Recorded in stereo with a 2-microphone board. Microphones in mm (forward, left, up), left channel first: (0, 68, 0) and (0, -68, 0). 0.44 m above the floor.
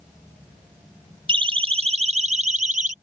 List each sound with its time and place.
1.3 s a siren: 40° right (ahead or behind); by 2.9 s 70° right (ahead or behind)